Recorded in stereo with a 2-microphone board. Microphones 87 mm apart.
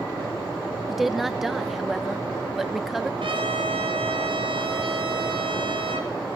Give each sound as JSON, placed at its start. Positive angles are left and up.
{"t": 0.9, "sound": "a woman speaking", "side_deg": 0, "distance_m": 1.1}
{"t": 3.2, "sound": "a trumpet", "side_deg": -80, "distance_m": 8.0}